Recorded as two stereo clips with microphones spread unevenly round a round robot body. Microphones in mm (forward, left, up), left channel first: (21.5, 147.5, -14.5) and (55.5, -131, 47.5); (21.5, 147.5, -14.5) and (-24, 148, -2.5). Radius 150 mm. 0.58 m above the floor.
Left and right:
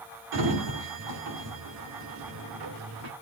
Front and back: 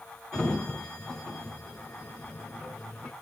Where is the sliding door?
100° right, 1.8 m.